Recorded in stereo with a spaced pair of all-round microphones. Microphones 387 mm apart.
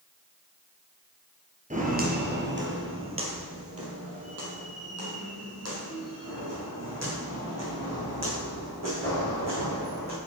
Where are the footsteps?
20° right (ahead or behind), 1.8 m; by 10.2 s 40° right (ahead or behind), 7 m.